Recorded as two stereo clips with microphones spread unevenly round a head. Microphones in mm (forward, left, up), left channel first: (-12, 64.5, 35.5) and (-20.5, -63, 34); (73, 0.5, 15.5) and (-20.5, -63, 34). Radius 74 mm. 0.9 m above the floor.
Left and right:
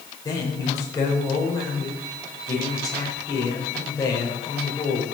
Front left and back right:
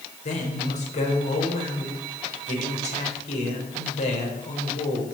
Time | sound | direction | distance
0.2 | a man speaking | 20° left | 4 m